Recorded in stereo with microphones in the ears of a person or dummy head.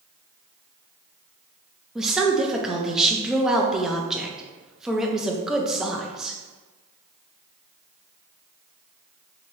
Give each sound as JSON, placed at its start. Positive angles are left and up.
{"t": 1.9, "sound": "a woman speaking", "side_deg": -5, "distance_m": 0.5}